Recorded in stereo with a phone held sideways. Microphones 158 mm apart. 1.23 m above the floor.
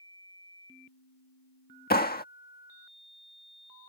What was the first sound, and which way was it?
A clap, 85° left.